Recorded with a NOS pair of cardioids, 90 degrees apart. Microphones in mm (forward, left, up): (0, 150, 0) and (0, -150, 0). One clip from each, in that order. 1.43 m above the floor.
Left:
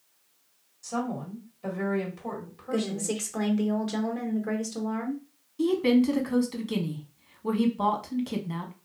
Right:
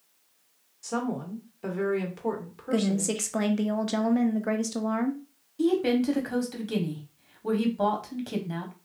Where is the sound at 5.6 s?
Straight ahead, 1.0 m.